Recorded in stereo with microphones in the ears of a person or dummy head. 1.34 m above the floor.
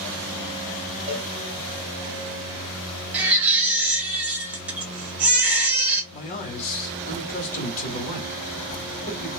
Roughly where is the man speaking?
Left.